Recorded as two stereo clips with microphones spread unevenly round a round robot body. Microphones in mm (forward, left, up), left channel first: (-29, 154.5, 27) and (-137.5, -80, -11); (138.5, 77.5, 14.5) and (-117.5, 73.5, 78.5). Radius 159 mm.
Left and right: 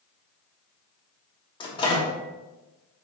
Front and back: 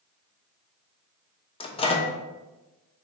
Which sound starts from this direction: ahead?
A microwave, at 1.6 s.